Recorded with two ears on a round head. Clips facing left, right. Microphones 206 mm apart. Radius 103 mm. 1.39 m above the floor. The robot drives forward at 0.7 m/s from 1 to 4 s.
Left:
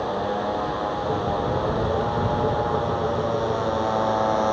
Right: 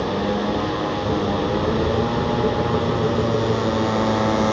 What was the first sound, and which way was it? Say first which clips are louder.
A motorcycle: right 4 dB; 40° right (ahead or behind).